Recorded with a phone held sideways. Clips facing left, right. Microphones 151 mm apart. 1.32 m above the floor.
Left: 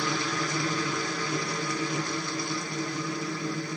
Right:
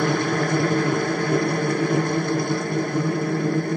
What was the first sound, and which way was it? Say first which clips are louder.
A machine running: right 9 dB; 55° right (ahead or behind).